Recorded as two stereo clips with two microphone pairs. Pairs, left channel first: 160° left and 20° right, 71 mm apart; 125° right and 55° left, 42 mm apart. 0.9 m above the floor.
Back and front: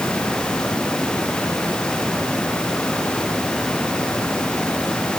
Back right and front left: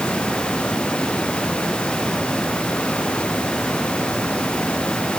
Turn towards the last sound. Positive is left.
No sound to turn to.